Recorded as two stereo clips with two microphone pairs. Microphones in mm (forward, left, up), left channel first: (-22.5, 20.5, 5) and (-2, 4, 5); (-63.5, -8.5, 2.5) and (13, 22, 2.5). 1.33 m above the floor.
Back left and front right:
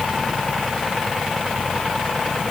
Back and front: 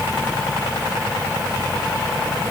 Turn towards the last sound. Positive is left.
No sound to turn to.